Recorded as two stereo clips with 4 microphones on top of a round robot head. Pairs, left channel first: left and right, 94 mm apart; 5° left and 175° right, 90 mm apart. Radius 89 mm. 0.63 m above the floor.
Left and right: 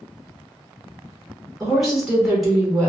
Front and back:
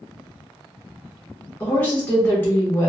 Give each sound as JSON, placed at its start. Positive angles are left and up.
{"t": 1.6, "sound": "a woman speaking", "azimuth_deg": -10, "distance_m": 1.1}